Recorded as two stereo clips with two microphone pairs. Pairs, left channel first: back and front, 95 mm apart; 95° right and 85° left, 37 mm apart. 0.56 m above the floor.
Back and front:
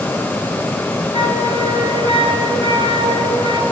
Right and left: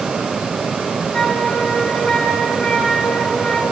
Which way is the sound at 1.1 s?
35° right.